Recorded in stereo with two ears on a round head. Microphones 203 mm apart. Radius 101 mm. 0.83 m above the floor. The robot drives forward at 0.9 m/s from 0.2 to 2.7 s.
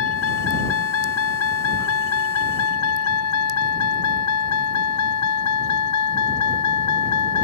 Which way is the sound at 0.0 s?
60° left (ahead or behind).